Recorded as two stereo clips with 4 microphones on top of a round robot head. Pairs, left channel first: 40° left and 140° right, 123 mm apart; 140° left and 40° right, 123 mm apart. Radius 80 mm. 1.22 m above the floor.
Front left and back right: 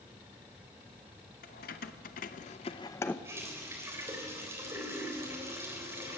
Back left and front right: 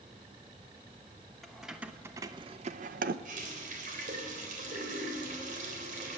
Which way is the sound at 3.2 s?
70° right.